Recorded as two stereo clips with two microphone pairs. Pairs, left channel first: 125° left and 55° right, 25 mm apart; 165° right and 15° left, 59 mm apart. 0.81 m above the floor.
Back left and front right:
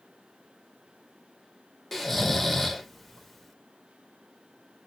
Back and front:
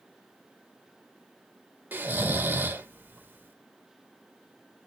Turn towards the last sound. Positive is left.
turn(degrees=45)